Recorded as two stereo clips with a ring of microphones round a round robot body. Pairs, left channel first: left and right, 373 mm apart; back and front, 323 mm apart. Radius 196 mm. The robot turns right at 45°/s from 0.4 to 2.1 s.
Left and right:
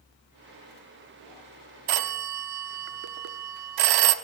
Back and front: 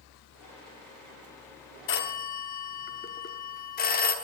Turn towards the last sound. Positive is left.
turn(degrees=-115)